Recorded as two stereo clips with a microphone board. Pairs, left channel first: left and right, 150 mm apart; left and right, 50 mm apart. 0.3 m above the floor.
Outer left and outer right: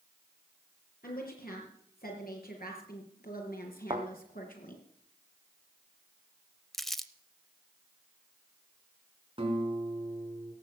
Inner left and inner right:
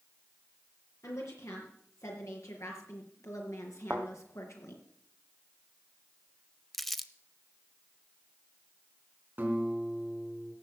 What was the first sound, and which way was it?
A woman speaking, 80° left.